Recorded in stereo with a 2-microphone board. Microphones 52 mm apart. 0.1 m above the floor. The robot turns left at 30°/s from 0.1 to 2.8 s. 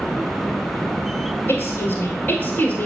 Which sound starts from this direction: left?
A woman speaking, at 1.5 s.